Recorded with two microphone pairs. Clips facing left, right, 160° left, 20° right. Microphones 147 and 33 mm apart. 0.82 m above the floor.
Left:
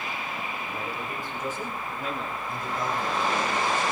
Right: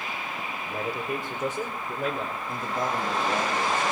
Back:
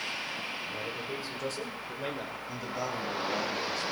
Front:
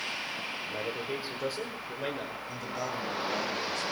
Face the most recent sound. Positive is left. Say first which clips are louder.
# right 1 dB, back 1 dB
turn(degrees=-120)